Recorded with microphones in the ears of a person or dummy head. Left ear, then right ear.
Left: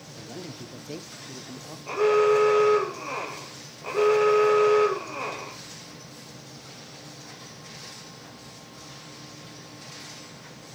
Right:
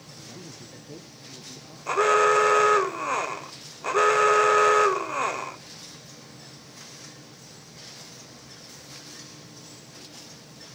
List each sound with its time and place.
0.2 s a man speaking: 85° left, 1.2 m
1.9 s an alarm: 45° right (ahead or behind), 0.8 m